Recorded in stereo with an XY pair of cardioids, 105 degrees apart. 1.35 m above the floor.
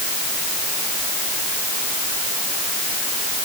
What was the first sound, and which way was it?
Only background noise.